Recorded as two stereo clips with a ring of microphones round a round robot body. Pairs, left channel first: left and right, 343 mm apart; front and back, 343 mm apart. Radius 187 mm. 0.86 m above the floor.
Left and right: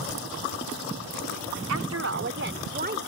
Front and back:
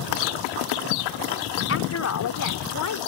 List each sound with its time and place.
1.7 s a woman speaking: 50° right; by 3.0 s 25° right